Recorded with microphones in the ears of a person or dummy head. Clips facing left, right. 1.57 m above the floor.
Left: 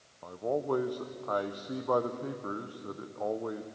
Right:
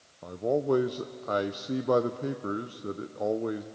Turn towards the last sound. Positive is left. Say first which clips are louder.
# right 5 dB
turn(degrees=-35)  # may be behind; listen again after turning